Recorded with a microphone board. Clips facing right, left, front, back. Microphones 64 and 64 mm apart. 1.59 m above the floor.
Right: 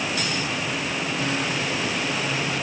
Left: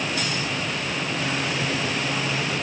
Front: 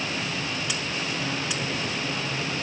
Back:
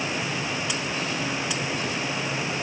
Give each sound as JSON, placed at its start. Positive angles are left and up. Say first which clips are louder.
{"t": 1.6, "sound": "footsteps", "louder": "left 1 dB, back 1 dB", "azimuth_deg": 85, "distance_m": 1.7}